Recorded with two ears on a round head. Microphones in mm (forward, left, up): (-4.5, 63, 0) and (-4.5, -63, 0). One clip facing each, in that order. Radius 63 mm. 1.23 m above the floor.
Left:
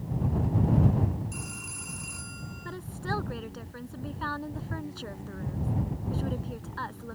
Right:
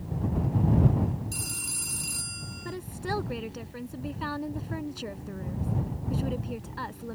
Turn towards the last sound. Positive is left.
turn(degrees=-15)  # may be behind; listen again after turning